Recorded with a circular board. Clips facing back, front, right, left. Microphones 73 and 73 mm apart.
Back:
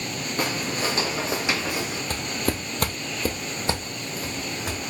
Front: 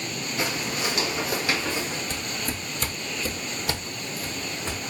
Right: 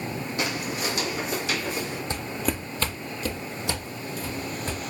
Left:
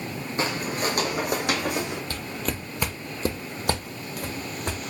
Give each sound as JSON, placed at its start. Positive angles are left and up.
{"t": 0.4, "sound": "footsteps", "azimuth_deg": 145, "distance_m": 1.1}
{"t": 2.1, "sound": "footsteps", "azimuth_deg": -155, "distance_m": 0.8}